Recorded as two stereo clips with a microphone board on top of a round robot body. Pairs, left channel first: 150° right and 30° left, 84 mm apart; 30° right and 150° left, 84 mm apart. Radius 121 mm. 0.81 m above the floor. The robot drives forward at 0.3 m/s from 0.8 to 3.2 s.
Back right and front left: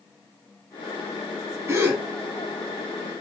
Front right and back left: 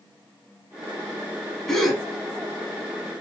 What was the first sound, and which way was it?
A gasp, 45° left.